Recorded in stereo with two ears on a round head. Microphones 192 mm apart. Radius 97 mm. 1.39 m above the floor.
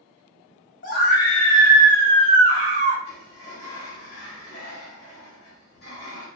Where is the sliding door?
50° left (ahead or behind), 1.5 m.